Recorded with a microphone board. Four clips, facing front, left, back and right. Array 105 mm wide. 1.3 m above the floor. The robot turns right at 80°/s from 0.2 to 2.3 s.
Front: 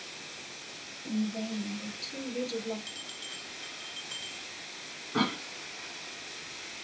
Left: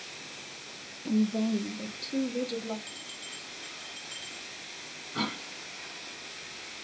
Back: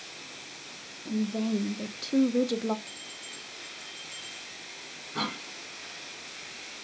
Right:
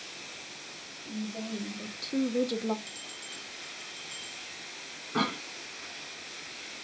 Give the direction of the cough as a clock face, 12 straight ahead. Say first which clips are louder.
Right 4 dB, front 4 dB; 2 o'clock.